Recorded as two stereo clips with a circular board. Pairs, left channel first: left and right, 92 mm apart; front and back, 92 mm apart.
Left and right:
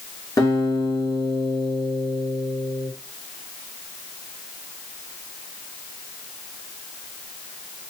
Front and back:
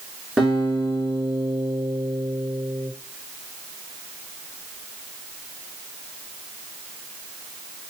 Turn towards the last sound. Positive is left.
turn(degrees=100)